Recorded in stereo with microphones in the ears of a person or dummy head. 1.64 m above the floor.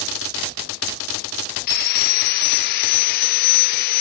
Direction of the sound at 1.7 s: 55° left (ahead or behind).